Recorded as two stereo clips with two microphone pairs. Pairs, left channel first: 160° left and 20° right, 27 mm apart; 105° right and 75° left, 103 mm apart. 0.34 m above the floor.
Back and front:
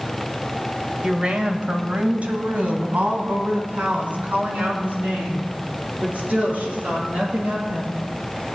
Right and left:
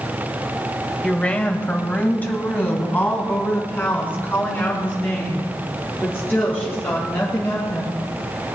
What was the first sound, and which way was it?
A woman speaking, 30° right.